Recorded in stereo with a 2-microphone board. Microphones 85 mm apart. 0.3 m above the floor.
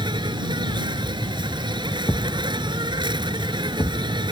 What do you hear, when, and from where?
0.0 s an insect: 70° right (ahead or behind)
2.1 s a thud: 40° left (ahead or behind)